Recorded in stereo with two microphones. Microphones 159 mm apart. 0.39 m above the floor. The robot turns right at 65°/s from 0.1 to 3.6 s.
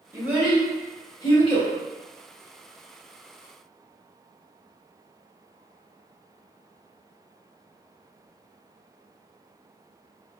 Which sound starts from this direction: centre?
A child speaking, at 0.1 s.